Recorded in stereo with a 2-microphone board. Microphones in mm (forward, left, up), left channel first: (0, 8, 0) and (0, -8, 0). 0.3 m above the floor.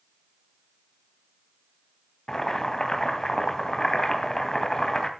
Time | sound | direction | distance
2.3 | boiling | 40° left (ahead or behind) | 2.5 m